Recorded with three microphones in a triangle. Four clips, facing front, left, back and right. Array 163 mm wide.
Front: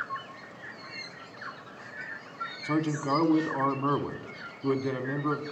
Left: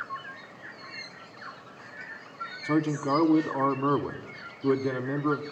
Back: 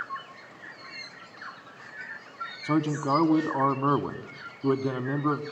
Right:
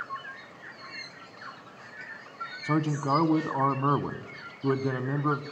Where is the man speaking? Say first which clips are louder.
Left 1 dB, back 3 dB; 145° right, 1.1 m.